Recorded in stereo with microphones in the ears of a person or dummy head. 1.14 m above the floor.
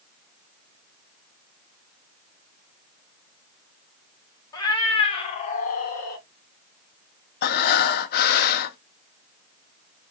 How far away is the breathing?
About 0.8 m.